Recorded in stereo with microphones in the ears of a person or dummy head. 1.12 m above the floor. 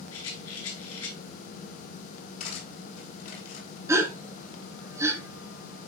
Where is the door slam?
No door slam in this recording.